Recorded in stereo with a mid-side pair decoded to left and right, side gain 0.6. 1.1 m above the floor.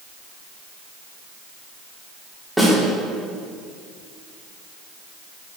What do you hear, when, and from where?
2.6 s a snare drum: straight ahead, 3.5 m